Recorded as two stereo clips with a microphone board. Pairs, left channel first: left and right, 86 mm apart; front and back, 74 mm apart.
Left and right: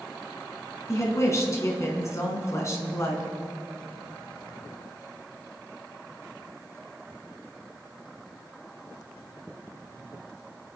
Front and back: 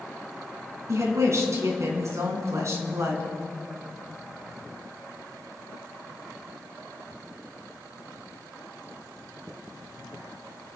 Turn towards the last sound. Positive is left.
turn(degrees=140)